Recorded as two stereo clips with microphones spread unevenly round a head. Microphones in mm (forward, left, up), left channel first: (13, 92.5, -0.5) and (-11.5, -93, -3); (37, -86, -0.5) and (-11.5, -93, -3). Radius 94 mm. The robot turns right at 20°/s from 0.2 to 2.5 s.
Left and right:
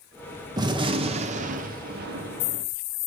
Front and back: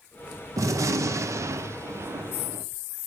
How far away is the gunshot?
About 0.6 m.